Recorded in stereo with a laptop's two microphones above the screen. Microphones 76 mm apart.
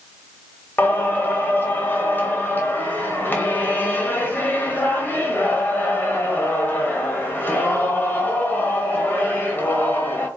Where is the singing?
25° left (ahead or behind), 1.0 m.